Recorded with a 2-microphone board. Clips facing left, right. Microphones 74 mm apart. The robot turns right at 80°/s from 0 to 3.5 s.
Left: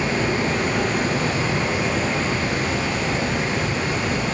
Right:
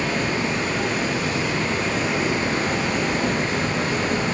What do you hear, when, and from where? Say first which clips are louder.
0.0 s running water: left 2 dB; 20° left, 0.8 m; by 4.3 s 60° right, 0.8 m